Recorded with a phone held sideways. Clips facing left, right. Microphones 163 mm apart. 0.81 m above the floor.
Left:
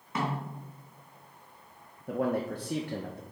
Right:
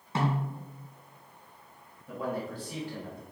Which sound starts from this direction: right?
A snare drum, at 0.1 s.